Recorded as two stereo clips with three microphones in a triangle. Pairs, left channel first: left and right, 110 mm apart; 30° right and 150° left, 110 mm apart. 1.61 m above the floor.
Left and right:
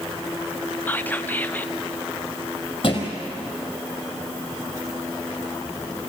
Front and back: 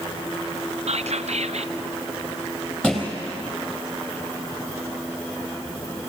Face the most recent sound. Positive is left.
turn(degrees=50)